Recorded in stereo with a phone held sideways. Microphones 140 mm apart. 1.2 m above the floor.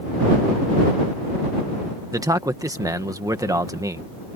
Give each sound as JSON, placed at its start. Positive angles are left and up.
{"t": 2.1, "sound": "a man speaking", "side_deg": -25}